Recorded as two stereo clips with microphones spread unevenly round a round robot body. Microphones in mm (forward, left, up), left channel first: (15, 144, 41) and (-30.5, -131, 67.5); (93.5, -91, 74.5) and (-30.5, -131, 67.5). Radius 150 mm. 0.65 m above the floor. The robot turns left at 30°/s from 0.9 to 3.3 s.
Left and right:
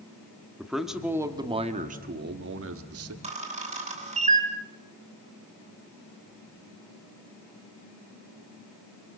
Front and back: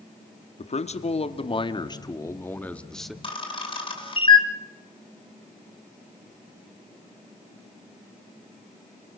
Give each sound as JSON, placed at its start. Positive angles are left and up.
{"t": 0.6, "sound": "a man speaking", "azimuth_deg": -10, "distance_m": 1.5}
{"t": 3.2, "sound": "a camera shutter", "azimuth_deg": -30, "distance_m": 3.0}